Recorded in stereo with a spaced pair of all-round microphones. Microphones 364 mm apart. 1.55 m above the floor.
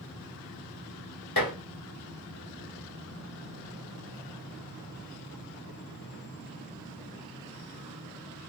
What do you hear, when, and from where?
1.4 s dishes clattering: 70° left (ahead or behind), 1.4 m